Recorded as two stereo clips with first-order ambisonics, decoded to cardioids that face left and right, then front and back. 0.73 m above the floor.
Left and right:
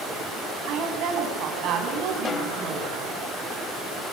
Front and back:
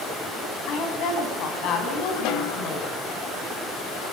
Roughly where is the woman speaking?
Ahead right.